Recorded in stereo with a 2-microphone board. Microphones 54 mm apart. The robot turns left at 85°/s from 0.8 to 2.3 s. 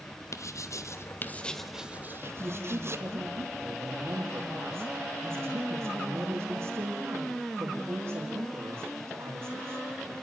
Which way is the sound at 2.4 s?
50° right (ahead or behind).